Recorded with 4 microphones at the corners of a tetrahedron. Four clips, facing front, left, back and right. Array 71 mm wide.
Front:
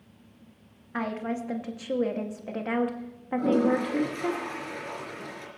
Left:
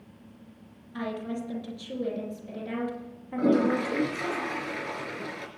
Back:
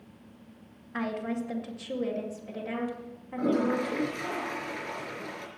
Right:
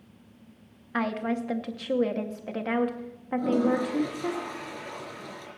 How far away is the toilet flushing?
About 4 m.